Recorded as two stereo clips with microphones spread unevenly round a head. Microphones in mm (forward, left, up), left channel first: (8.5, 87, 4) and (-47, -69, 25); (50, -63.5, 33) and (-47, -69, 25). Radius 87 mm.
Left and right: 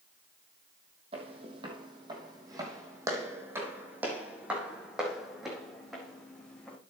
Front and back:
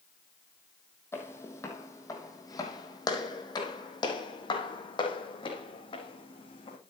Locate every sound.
1.1 s footsteps: 55° right, 3 m; by 6.8 s 15° right, 4.5 m